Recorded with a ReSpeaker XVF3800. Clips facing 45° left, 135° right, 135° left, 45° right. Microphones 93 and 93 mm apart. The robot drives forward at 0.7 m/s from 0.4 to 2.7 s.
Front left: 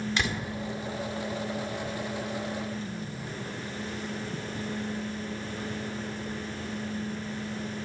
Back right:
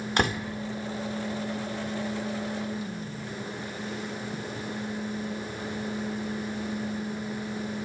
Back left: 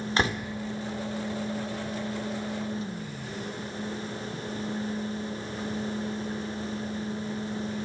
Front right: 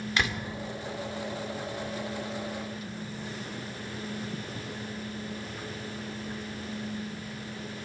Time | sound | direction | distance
0.2 | a door slam | 175° right | 2 m